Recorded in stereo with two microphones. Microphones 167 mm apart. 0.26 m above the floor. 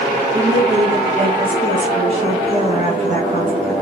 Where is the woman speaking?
25° right (ahead or behind), 2 m; by 3.7 s 45° right (ahead or behind), 1.7 m.